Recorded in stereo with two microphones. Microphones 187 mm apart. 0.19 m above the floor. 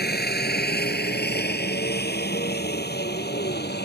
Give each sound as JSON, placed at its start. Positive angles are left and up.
{"t": 0.0, "sound": "a helicopter", "side_deg": 60}